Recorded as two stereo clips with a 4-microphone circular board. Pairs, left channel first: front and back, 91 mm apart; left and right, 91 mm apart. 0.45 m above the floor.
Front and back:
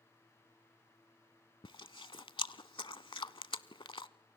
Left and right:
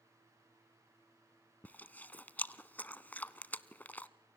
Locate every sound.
1.6 s chewing: 20° left, 0.7 m